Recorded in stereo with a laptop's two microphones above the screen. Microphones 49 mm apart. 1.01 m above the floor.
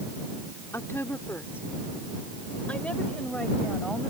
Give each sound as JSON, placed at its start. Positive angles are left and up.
{"t": 0.7, "sound": "a woman speaking", "side_deg": 65}